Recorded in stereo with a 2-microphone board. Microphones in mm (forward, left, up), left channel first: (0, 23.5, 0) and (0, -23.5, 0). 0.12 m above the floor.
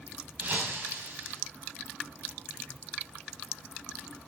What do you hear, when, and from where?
0.4 s breaking glass: 35° right (ahead or behind), 7.5 m